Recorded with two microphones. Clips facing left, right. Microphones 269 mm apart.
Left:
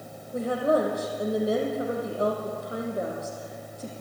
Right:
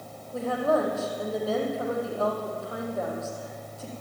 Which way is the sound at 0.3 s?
20° left (ahead or behind).